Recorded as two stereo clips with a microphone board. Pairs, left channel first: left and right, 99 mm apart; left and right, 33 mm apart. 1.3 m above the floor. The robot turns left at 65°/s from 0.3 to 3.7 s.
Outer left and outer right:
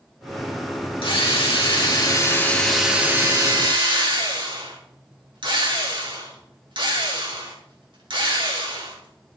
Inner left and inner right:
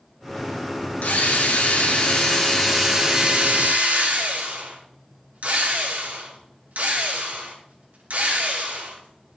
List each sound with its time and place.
1.0 s a drill: 110° left, 2.5 m; by 9.4 s 65° right, 2.5 m